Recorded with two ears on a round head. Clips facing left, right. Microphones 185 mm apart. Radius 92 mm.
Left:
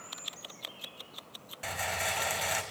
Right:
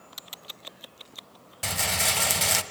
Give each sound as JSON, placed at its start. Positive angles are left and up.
{"t": 1.6, "sound": "a rattle", "side_deg": -55, "distance_m": 1.2}